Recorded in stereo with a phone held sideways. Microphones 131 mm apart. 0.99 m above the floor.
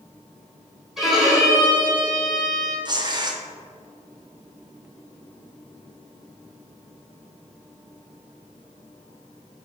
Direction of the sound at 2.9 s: 30° right (ahead or behind).